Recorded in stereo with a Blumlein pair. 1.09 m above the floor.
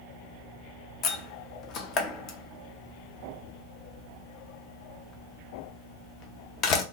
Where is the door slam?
35° left, 0.9 m.